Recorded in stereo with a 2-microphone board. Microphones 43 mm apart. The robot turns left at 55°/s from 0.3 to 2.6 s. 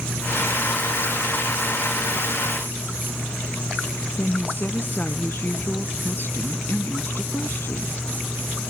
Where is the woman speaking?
55° left (ahead or behind).